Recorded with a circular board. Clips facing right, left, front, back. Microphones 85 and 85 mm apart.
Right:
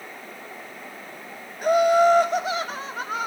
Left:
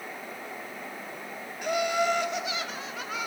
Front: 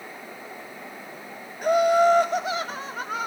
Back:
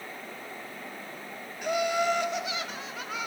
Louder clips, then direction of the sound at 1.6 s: Right 10 dB, front 9 dB; 45° right.